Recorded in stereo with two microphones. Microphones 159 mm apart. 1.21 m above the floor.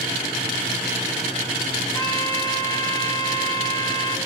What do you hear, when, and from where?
1.9 s a trumpet: 25° left (ahead or behind), 3.5 m